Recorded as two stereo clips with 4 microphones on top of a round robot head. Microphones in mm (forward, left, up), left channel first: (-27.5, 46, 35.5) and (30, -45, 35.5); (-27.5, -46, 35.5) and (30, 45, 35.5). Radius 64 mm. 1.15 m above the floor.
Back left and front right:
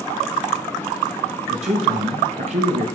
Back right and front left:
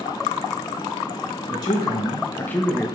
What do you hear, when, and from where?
1.5 s a man speaking: 75° right, 2 m; by 2.9 s 35° right, 1.3 m